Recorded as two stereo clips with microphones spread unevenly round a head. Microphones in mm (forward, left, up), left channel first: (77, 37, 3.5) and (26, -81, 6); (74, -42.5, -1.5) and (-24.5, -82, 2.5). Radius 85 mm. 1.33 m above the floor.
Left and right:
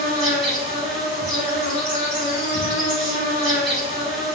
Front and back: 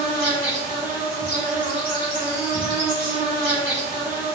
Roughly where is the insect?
Behind left.